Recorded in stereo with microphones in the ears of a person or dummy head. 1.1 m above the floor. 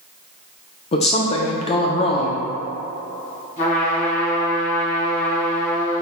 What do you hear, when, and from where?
0.9 s a woman speaking: 30° left (ahead or behind), 0.5 m
3.6 s a trumpet: 40° left (ahead or behind), 1.3 m